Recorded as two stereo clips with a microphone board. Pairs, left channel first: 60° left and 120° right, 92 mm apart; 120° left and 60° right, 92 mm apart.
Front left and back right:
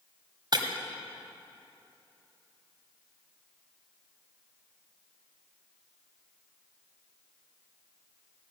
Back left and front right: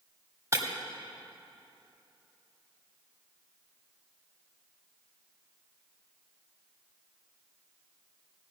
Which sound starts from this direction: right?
Breaking glass, at 0.5 s.